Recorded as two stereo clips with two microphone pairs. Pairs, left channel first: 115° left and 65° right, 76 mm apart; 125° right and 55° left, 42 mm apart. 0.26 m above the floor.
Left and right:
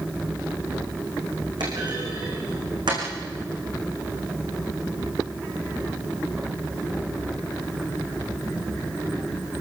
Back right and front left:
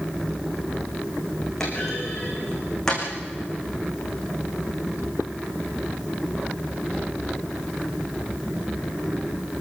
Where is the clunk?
50° right, 9.5 m.